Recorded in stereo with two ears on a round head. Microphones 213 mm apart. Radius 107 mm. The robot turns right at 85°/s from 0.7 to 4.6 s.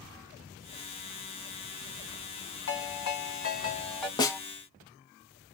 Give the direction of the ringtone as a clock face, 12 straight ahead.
10 o'clock.